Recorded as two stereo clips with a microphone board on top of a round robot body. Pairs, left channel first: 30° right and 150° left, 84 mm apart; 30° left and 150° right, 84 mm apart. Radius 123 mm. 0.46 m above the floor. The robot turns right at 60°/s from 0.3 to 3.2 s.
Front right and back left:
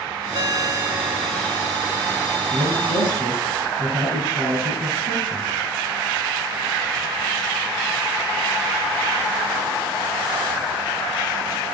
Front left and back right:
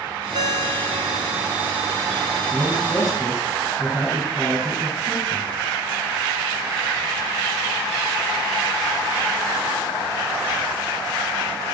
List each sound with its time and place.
0.3 s a ringtone: 175° right, 1.5 m; by 1.7 s 95° right, 1.5 m
2.5 s a man speaking: 90° left, 9 m; by 5.5 s 130° left, 9 m